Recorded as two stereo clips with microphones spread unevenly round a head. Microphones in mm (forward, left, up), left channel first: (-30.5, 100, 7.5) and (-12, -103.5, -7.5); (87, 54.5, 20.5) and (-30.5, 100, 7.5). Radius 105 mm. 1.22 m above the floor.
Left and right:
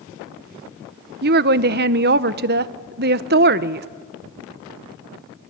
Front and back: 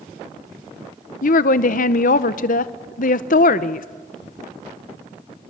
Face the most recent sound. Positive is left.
turn(degrees=-45)